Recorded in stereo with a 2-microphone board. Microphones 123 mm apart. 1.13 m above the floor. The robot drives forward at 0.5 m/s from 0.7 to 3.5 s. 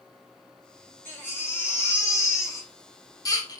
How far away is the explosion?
I don't hear an explosion.